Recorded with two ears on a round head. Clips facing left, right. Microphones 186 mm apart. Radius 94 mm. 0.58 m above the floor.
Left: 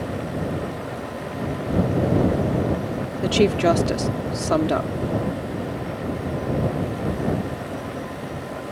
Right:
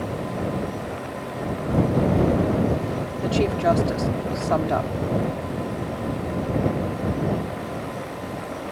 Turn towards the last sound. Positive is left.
turn(degrees=40)  # may be behind; listen again after turning